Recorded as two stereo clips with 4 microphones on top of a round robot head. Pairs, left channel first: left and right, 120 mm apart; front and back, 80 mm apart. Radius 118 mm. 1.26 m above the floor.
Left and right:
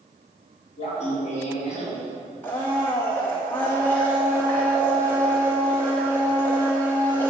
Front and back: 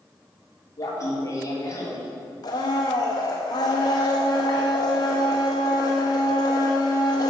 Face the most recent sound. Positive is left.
turn(degrees=15)